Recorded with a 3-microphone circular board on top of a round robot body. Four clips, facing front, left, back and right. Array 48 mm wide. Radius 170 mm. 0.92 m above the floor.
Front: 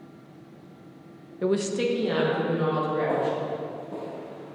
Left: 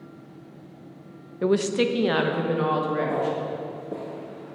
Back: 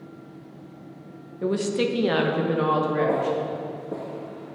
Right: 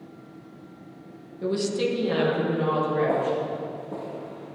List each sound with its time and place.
1.4 s a woman speaking: 70° left, 1.0 m; by 3.4 s 145° left, 3 m
3.1 s footsteps: straight behind, 1.3 m; by 4.6 s 90° left, 1.1 m